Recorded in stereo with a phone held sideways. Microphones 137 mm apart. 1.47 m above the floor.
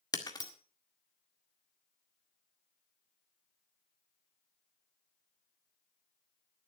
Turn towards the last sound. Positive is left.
turn(degrees=30)  # may be behind; listen again after turning